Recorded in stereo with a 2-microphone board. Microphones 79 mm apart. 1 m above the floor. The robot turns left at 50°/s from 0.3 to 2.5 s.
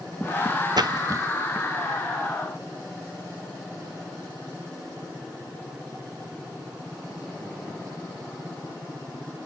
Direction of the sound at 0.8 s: 60° right (ahead or behind).